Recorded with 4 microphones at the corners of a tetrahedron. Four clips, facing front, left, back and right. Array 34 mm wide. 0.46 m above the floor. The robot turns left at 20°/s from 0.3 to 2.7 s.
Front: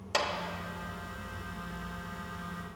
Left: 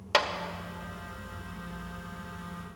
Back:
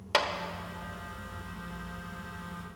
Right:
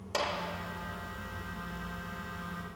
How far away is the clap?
About 0.8 m.